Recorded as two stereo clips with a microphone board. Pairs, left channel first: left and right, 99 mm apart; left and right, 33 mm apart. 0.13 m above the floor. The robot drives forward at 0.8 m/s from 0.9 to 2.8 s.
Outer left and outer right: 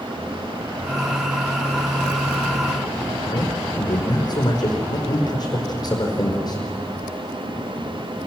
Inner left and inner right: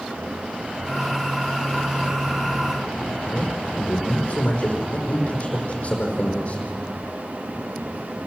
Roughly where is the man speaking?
Left.